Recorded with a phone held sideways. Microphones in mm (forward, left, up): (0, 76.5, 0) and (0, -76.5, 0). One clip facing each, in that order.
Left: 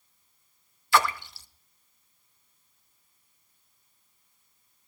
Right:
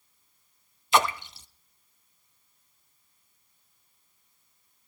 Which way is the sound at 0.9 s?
20° right (ahead or behind).